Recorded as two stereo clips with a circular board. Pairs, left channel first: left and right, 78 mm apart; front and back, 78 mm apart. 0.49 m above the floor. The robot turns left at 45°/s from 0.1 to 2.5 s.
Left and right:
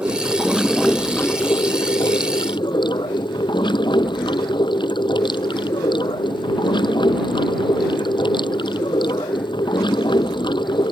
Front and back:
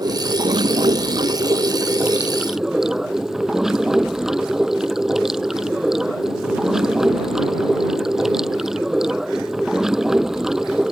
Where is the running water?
155° right; by 10.9 s 95° left.